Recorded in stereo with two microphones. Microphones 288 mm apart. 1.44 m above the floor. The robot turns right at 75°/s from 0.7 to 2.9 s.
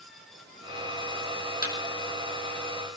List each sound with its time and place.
1.6 s a thud: 35° left (ahead or behind), 5 m; by 1.8 s 40° left (ahead or behind), 5 m